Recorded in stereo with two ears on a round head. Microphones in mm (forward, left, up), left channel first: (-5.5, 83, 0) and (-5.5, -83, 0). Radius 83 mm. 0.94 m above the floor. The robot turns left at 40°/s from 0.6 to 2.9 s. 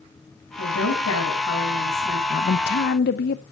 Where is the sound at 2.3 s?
50° left (ahead or behind), 0.7 m; by 3.4 s 55° left (ahead or behind), 0.7 m.